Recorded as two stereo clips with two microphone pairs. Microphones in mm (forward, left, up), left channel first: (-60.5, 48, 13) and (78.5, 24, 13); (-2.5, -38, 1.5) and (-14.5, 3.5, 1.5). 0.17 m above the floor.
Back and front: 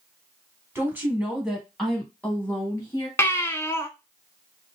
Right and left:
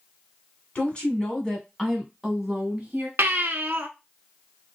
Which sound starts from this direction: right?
A woman speaking, at 0.8 s.